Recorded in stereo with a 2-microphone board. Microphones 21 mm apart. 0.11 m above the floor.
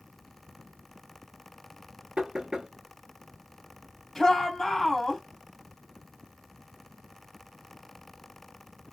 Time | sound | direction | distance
2.2 | knocking | 45° right (ahead or behind) | 1.0 m
4.2 | a shout | 20° left (ahead or behind) | 2.5 m